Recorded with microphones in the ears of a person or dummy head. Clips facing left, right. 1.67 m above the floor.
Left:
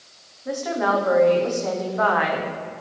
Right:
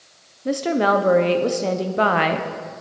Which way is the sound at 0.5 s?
30° right (ahead or behind).